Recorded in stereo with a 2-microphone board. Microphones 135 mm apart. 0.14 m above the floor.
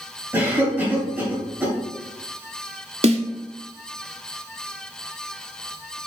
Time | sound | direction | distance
0.3 | a cough | 15° right (ahead or behind) | 1.9 m
3.0 | a snare drum | 50° right (ahead or behind) | 0.7 m